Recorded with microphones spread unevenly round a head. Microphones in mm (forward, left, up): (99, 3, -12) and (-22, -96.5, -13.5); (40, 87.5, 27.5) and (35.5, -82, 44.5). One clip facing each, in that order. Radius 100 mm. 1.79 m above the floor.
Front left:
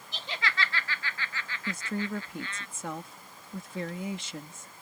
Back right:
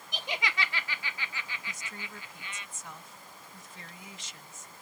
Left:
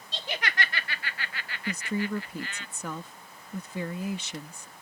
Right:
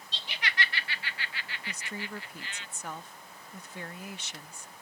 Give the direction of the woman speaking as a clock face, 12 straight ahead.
9 o'clock.